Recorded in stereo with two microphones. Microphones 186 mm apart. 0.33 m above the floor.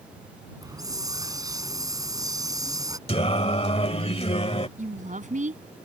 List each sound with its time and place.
0.6 s a hiss: 20° right (ahead or behind)
3.1 s singing: 35° left (ahead or behind)
4.8 s a woman speaking: 45° right (ahead or behind)